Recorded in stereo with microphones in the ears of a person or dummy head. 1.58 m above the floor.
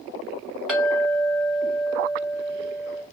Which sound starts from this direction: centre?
A clink, at 0.7 s.